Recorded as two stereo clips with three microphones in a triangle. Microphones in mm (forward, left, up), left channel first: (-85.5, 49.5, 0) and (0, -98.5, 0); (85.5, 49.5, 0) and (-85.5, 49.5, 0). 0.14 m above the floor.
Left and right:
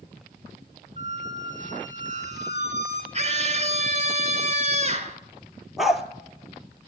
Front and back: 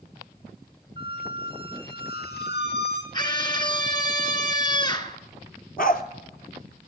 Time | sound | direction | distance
1.0 | a squeak | 15° right | 1.9 m
3.1 | a scream | 50° right | 1.6 m
5.8 | a dog barking | 30° left | 1.0 m